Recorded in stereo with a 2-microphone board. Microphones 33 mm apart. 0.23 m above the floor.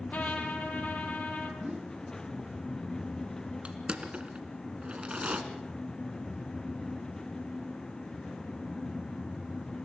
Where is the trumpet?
60° left (ahead or behind), 2.5 m.